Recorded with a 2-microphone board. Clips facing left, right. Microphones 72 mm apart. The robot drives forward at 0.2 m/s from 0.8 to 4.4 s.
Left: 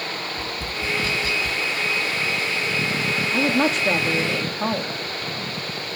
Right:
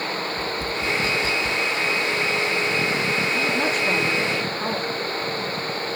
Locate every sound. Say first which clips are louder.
0.4 s tapping: right 3 dB; 20° right (ahead or behind), 1.0 m; by 1.6 s 25° right (ahead or behind), 0.8 m
3.3 s a woman speaking: left 2 dB; 85° left, 1.4 m; by 4.9 s 75° left (ahead or behind), 1.4 m